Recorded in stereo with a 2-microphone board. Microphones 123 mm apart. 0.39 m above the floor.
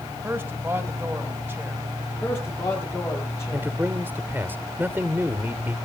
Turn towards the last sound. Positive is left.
turn(degrees=-15)  # may be behind; listen again after turning